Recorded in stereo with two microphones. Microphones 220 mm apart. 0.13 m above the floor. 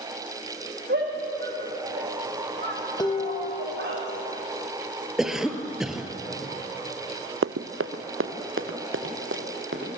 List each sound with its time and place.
0.9 s a shout: 50° right (ahead or behind), 7 m
3.0 s dishes clattering: 20° left (ahead or behind), 3.5 m
5.2 s a cough: centre (ahead or behind), 2 m
7.4 s running footsteps: 85° right, 0.6 m; by 9.9 s 60° right (ahead or behind), 3.5 m